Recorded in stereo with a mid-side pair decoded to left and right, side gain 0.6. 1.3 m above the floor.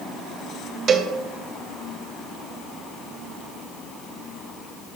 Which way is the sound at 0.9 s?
40° right.